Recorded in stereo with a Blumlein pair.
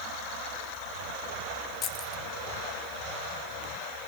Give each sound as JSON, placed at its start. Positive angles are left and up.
{"t": 1.8, "sound": "keys jangling", "azimuth_deg": 30, "distance_m": 1.1}